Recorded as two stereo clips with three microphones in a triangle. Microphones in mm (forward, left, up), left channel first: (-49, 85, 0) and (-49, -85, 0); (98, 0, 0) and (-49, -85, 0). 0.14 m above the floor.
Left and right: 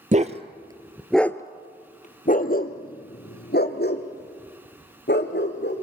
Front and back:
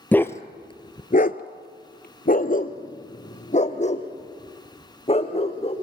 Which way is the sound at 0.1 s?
50° right.